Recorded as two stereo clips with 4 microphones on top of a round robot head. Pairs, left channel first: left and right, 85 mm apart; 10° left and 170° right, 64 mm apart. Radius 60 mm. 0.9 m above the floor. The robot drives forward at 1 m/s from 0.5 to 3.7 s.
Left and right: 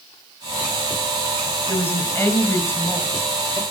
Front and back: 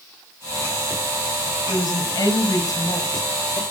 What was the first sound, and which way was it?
A woman speaking, 25° left.